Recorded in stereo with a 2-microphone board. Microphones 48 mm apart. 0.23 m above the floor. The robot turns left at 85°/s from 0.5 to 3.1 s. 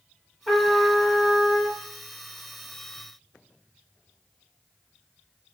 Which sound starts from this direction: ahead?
A trumpet, at 0.5 s.